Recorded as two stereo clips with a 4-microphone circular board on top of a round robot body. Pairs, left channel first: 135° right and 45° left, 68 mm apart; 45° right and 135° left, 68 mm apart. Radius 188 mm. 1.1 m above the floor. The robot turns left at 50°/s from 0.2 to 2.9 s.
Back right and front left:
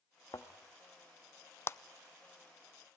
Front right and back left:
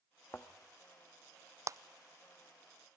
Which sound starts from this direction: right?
A thud, at 0.3 s.